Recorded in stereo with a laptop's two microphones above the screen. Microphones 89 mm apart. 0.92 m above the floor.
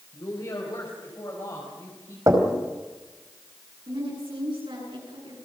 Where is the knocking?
40° right (ahead or behind), 4 m.